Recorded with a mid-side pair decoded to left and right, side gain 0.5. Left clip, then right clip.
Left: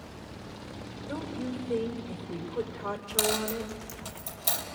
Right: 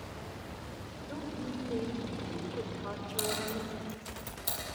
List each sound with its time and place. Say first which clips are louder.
1.1 s a woman speaking: left 4 dB; 55° left, 5 m
3.2 s a dropped coin: left 6 dB; 70° left, 5.5 m